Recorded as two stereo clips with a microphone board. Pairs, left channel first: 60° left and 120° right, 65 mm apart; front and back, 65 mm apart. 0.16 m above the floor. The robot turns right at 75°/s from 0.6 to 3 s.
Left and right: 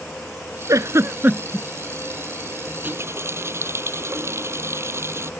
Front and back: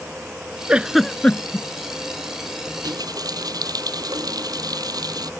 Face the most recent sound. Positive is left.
turn(degrees=-170)